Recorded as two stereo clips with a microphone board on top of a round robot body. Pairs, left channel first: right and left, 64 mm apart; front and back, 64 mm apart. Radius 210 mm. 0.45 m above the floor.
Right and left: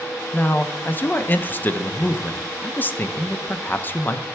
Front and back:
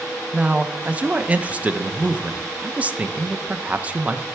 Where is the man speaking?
125° right, 0.9 m.